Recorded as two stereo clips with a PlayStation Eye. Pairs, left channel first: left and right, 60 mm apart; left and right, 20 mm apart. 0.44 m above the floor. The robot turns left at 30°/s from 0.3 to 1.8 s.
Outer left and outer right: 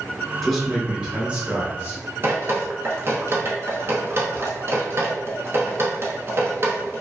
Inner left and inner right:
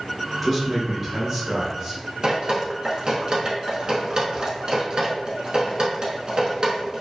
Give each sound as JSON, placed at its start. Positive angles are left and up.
{"t": 0.4, "sound": "a man speaking", "azimuth_deg": 0, "distance_m": 1.1}
{"t": 2.2, "sound": "dripping", "side_deg": -45, "distance_m": 0.7}